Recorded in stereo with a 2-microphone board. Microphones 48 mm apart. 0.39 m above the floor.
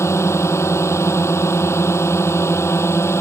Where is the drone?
75° left (ahead or behind); by 3.2 s 70° left (ahead or behind).